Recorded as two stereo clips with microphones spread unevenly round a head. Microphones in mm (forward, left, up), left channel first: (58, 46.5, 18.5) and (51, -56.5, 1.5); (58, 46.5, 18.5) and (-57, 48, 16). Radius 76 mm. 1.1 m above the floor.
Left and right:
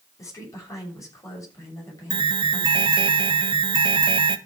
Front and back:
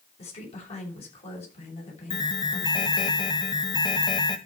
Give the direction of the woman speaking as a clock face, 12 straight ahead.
11 o'clock.